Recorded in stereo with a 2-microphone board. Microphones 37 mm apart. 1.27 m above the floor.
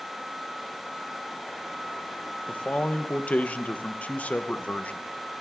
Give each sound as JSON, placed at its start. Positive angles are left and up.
{"t": 2.5, "sound": "a man speaking", "side_deg": 40, "distance_m": 0.9}